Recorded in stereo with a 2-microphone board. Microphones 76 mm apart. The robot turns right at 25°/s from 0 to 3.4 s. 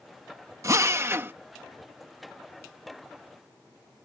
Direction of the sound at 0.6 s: 40° right (ahead or behind).